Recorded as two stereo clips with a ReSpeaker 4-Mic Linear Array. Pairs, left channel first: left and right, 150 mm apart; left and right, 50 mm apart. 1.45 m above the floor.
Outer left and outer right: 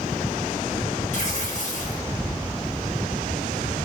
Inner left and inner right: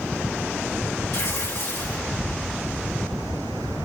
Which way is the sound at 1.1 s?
55° left (ahead or behind).